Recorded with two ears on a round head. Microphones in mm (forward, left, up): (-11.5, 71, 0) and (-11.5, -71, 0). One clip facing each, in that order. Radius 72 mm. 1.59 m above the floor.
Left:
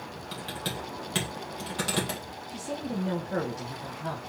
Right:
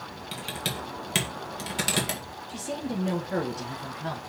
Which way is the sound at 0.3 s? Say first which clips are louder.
Right 1 dB; 20° right (ahead or behind).